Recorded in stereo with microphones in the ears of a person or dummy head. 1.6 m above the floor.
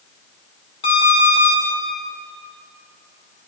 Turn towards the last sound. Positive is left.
turn(degrees=35)  # may be behind; listen again after turning